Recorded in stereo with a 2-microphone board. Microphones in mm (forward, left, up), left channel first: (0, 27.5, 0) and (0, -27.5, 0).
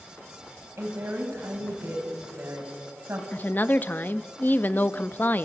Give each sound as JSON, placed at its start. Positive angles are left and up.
{"t": 0.8, "sound": "a woman speaking", "side_deg": -55, "distance_m": 5.0}
{"t": 3.3, "sound": "a woman speaking", "side_deg": 40, "distance_m": 0.7}